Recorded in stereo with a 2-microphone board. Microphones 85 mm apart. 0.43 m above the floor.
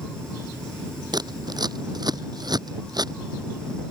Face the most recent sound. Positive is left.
turn(degrees=-55)  # may be behind; listen again after turning